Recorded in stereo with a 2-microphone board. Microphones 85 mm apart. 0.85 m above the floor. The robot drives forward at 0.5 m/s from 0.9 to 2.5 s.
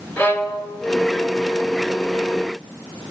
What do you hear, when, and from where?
0.2 s a violin: 25° left (ahead or behind), 2.5 m